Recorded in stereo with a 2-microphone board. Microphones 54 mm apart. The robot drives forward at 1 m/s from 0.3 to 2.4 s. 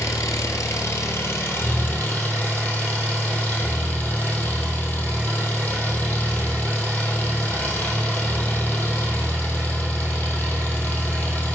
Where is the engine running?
80° left, 1.5 m; by 11.5 s 35° left (ahead or behind), 2.5 m.